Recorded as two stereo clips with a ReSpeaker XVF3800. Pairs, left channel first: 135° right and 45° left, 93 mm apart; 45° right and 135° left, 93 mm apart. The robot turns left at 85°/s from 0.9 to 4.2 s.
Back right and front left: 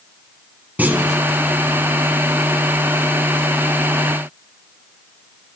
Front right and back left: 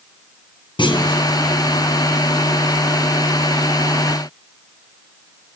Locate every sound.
0.8 s a clunk: 25° right, 0.9 m; by 1.2 s 55° right, 0.9 m